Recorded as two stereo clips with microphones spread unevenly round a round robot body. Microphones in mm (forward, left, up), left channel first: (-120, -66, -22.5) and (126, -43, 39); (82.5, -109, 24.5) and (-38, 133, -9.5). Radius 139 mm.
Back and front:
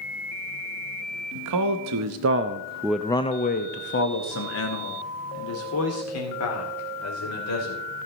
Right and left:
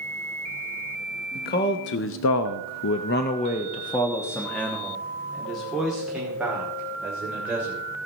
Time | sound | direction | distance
1.4 | a man speaking | 5° right | 0.9 m